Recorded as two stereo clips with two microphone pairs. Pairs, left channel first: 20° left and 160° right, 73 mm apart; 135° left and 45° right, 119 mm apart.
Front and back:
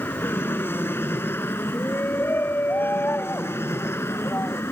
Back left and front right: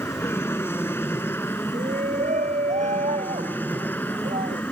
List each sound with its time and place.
0.0 s an aircraft: 70° left; by 4.7 s 65° left
1.7 s a shout: 40° right